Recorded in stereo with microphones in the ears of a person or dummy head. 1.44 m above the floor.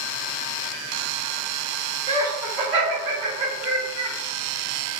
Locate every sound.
2.1 s laughter: 5° right (ahead or behind), 1.8 m; by 4.2 s 35° right (ahead or behind), 0.7 m